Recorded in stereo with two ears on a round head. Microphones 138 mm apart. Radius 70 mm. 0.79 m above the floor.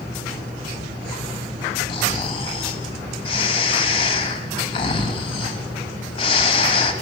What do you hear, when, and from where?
1.9 s snoring: 35° left (ahead or behind), 1.4 m